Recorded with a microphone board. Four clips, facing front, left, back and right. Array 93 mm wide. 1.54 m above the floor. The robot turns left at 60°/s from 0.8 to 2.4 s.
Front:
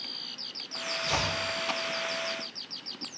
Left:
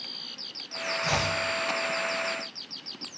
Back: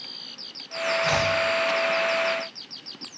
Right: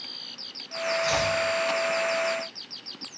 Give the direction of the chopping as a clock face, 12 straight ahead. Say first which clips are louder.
Right 1 dB, back 6 dB; 7 o'clock.